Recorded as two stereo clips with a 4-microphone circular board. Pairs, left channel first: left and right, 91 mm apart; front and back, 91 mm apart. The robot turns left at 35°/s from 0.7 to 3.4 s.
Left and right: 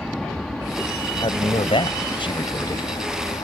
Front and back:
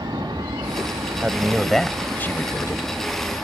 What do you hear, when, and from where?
0.0 s an aircraft: 175° left; by 3.4 s 80° left
1.2 s a man speaking: 105° left; by 2.9 s 45° left